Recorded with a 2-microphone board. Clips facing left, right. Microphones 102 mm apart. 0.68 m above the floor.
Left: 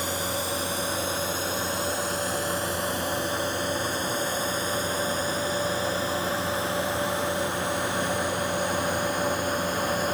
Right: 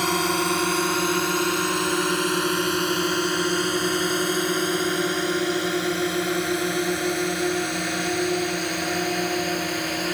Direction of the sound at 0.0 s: 65° right (ahead or behind).